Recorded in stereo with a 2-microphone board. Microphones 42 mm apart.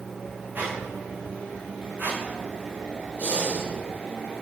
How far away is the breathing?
About 3 m.